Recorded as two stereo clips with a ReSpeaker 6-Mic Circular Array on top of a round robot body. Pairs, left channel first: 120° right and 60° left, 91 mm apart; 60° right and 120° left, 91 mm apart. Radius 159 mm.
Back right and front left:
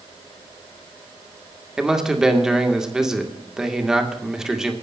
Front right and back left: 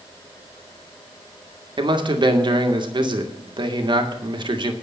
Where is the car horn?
No car horn in this recording.